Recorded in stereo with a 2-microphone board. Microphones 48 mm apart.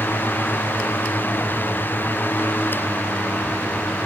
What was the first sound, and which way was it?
Only background noise.